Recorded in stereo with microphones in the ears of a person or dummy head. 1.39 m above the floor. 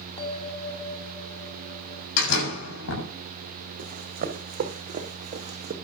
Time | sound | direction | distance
0.2 | a bell | 30° left (ahead or behind) | 1.5 m
2.2 | a door slam | 80° left | 7 m
3.8 | running footsteps | 45° right (ahead or behind) | 4.5 m